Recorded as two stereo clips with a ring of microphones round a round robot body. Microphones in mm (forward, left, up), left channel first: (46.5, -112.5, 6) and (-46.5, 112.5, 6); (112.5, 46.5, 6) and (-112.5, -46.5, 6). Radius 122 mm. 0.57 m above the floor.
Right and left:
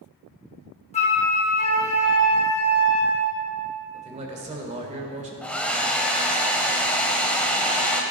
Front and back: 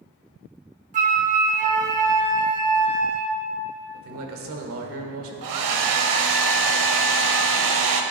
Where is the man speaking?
175° left, 2.0 m.